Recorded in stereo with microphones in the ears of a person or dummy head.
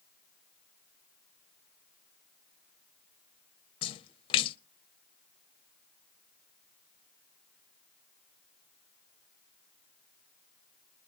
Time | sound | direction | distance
3.8 | a splash | 35° left (ahead or behind) | 0.5 m